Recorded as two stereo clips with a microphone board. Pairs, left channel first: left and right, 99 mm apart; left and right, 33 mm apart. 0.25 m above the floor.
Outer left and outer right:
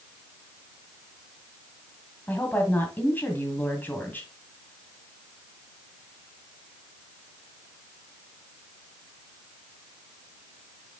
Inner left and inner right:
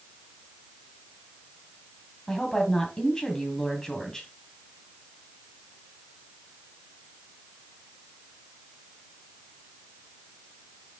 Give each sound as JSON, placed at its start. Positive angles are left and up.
{"t": 2.3, "sound": "a woman speaking", "side_deg": 20, "distance_m": 2.0}